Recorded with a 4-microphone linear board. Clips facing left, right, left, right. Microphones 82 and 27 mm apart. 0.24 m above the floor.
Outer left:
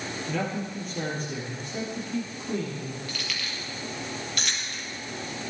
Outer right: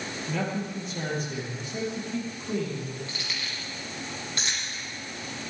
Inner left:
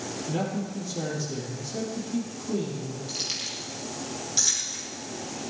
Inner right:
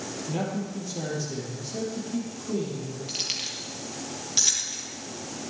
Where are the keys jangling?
30° right (ahead or behind), 3.5 m.